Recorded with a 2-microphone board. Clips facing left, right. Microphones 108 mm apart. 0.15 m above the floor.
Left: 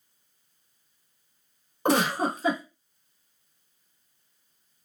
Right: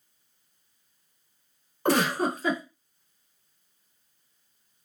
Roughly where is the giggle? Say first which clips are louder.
Even; centre.